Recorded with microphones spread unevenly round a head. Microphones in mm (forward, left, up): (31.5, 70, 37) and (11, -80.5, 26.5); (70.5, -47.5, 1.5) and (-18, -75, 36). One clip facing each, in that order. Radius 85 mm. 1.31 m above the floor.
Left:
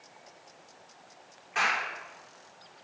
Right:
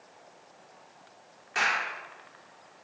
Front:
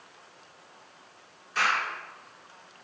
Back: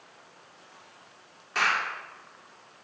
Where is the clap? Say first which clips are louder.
Even, even; 150° right, 3 m.